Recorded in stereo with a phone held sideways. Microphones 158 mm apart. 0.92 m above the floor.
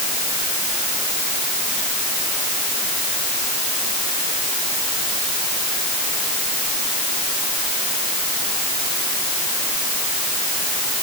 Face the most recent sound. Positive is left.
No sound to turn to.